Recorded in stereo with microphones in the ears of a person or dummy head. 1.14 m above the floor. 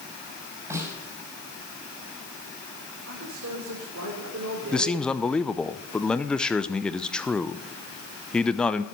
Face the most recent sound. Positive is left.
turn(degrees=10)  # may be behind; listen again after turning